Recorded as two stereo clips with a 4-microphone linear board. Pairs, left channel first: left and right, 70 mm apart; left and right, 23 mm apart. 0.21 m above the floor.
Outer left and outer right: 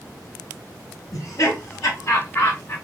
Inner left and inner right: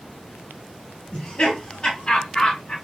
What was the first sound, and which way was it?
Laughter, 55° left (ahead or behind).